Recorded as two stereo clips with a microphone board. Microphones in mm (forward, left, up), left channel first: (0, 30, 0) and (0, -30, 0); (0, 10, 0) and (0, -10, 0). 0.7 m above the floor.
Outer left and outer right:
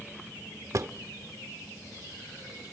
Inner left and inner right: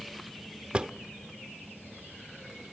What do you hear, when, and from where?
0.7 s a drawer: 60° right (ahead or behind), 0.8 m